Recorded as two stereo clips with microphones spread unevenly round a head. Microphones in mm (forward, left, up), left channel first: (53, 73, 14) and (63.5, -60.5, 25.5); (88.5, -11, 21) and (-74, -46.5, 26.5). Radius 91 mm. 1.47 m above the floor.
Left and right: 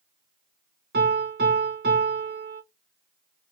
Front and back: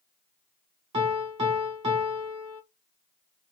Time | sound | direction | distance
0.9 | a piano | 110° right | 1.4 m